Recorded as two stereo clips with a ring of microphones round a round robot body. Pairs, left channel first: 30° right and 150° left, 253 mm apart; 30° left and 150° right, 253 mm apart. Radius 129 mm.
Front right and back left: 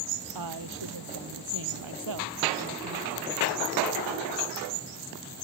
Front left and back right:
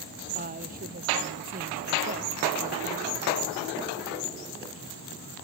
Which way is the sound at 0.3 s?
150° left.